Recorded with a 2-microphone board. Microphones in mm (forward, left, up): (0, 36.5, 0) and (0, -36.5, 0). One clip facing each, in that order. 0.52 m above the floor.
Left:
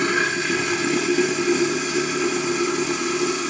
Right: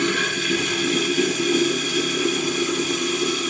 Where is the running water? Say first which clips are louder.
Left 2 dB; 20° left (ahead or behind), 1.2 m.